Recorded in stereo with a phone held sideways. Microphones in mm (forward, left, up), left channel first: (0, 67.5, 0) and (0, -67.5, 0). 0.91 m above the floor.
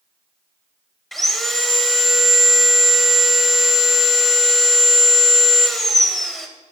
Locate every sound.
1.1 s sawing: centre (ahead or behind), 0.9 m